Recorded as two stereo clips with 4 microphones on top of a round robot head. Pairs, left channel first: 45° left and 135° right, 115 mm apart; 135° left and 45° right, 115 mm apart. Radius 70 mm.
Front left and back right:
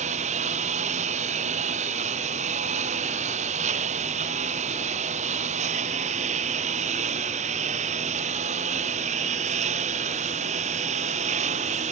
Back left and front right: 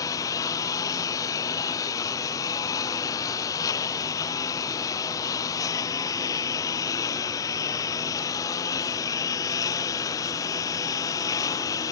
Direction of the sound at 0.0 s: 160° right.